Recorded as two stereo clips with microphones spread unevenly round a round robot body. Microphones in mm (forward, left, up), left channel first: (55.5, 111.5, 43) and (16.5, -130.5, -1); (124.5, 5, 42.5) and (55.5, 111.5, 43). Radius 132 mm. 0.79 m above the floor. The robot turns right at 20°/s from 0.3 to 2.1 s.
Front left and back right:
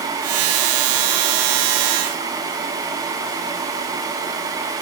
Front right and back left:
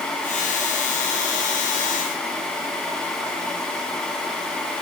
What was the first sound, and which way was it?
Only background noise.